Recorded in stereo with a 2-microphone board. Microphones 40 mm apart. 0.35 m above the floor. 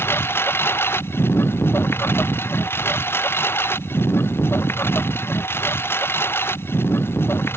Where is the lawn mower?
85° left.